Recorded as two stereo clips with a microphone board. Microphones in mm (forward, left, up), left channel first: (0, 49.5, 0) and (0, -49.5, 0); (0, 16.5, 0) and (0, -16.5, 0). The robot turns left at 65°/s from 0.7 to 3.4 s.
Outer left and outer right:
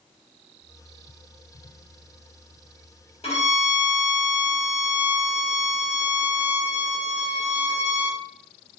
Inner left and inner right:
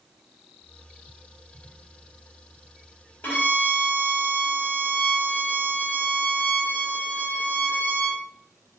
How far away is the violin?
About 1.6 m.